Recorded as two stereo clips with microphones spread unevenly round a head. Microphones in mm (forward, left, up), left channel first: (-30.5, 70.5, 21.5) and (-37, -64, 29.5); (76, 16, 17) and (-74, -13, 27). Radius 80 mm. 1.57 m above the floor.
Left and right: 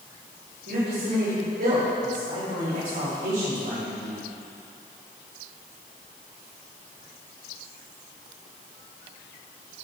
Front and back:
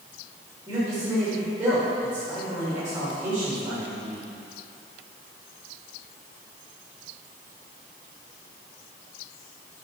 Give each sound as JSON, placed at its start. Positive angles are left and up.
{"t": 0.7, "sound": "a man speaking", "azimuth_deg": -95, "distance_m": 3.5}